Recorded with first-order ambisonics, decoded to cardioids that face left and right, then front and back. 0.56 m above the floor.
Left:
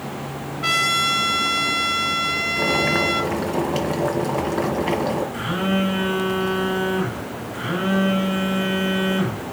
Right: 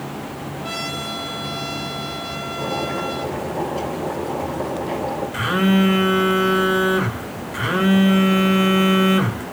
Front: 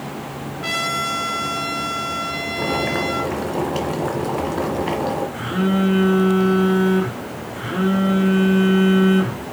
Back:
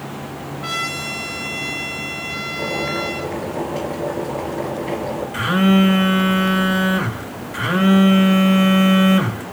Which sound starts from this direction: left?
A trumpet, at 0.6 s.